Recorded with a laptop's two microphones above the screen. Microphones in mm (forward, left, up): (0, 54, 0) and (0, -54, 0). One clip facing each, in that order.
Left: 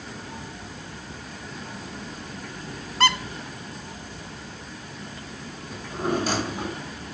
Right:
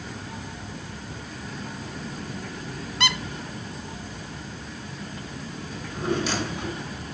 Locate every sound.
3.0 s a squeak: 45° left (ahead or behind), 2.0 m
5.7 s a drawer: 45° left (ahead or behind), 6 m